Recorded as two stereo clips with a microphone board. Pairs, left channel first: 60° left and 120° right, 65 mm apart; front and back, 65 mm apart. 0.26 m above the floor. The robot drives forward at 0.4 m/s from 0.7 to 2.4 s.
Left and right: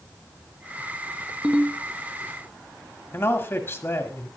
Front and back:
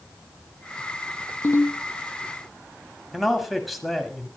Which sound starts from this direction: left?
A man speaking, at 3.1 s.